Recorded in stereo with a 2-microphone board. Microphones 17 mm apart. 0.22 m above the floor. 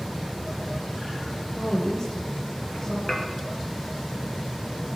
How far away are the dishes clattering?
About 3 m.